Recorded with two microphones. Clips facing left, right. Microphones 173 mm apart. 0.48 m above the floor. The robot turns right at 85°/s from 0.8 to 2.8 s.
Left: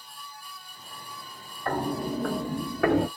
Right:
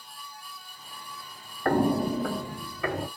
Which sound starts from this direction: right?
Footsteps, at 1.6 s.